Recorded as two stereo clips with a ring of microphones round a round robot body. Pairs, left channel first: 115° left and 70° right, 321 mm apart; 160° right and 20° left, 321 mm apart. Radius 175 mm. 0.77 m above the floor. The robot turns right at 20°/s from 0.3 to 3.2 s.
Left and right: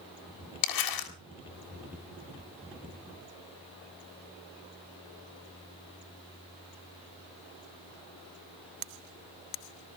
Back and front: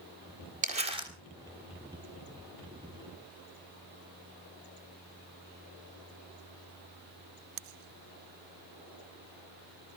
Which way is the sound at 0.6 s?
90° left.